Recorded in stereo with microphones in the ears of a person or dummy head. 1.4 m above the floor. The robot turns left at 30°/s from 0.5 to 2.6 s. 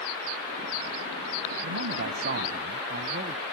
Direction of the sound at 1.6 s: 75° right (ahead or behind).